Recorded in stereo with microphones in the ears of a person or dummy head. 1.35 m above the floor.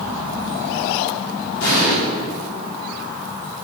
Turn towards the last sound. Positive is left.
turn(degrees=80)